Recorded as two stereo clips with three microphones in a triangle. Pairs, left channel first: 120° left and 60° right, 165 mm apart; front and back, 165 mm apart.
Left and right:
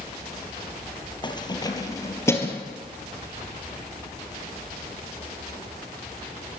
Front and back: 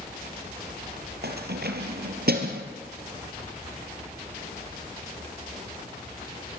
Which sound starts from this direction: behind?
Keys jangling, at 1.2 s.